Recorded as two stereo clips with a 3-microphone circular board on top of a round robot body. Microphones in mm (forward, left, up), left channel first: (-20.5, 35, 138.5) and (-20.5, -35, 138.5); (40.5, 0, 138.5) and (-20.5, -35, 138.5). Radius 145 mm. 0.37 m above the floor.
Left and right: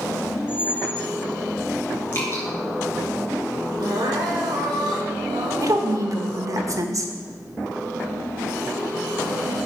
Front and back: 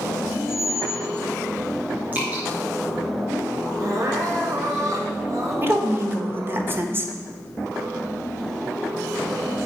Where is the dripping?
145° left, 3 m.